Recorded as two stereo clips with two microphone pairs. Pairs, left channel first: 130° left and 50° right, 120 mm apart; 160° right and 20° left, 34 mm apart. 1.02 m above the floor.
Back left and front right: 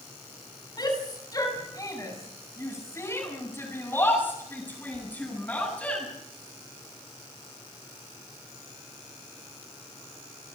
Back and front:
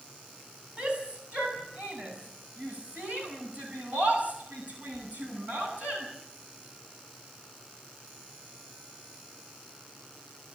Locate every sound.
0.8 s a shout: 75° left, 8 m; by 6.0 s 50° left, 10 m